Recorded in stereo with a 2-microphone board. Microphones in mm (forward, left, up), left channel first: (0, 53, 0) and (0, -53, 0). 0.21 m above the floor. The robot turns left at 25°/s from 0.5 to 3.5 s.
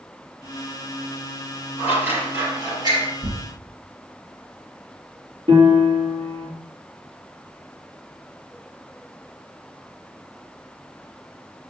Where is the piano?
60° right (ahead or behind), 4 m.